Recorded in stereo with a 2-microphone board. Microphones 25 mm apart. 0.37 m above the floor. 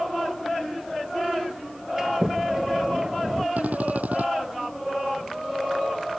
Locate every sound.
2.0 s a sliding door: 25° right (ahead or behind)
3.6 s a drill: 75° right (ahead or behind)